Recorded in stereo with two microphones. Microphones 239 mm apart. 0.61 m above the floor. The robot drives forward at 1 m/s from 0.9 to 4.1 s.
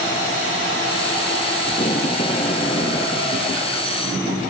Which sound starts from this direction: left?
Tape being pulled, at 1.7 s.